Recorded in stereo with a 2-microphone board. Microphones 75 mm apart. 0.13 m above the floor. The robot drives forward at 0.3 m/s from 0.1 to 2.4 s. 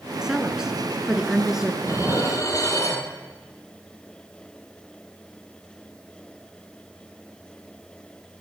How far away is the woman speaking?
About 1.2 m.